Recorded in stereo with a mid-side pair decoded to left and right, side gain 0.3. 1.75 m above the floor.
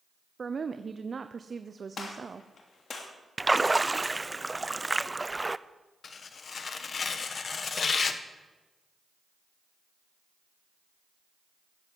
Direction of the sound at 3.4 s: 20° right.